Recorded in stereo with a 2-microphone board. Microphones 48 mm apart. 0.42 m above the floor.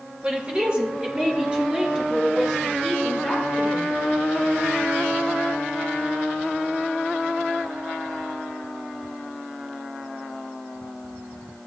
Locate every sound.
0.2 s a woman speaking: 25° right (ahead or behind), 1.9 m; by 4.0 s 20° right (ahead or behind), 6.5 m